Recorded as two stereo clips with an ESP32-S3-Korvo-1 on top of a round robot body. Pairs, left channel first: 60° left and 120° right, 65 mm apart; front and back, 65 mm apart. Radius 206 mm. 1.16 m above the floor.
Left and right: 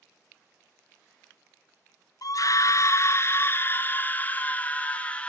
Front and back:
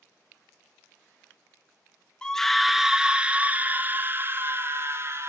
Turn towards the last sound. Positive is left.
turn(degrees=130)